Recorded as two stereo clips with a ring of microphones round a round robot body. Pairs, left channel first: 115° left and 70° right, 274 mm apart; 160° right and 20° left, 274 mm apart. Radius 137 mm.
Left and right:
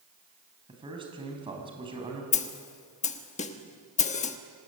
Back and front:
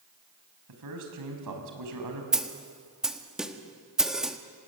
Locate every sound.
0.7 s a man speaking: 5° left, 5 m
2.3 s a snare drum: 105° left, 1.3 m